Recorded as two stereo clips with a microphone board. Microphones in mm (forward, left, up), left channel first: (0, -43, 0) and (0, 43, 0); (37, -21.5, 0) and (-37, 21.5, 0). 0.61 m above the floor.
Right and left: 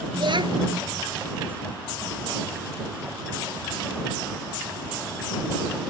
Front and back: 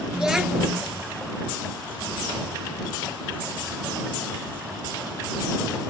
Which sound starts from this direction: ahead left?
A child speaking, at 0.1 s.